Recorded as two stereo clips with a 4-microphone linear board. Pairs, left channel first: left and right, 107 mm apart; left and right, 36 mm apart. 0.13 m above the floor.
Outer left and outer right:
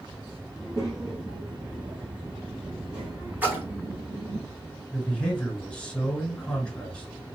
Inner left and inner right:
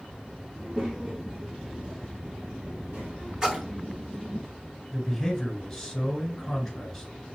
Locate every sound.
0.6 s a child speaking: 35° right (ahead or behind), 1.7 m; by 4.4 s 75° right (ahead or behind), 3 m
3.4 s a splash: 15° right (ahead or behind), 1.6 m
4.9 s a man speaking: 10° left (ahead or behind), 2 m